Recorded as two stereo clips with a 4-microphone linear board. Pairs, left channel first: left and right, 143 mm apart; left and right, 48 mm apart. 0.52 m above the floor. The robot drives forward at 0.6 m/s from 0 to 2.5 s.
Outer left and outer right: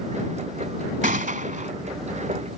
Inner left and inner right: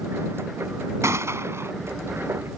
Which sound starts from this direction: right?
A gunshot, at 1.0 s.